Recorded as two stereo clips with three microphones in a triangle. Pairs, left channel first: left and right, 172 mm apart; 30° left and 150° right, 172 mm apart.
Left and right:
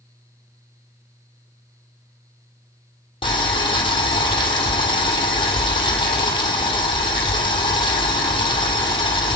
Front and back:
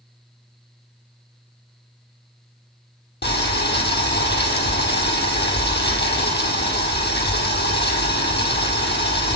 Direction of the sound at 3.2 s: 30° left.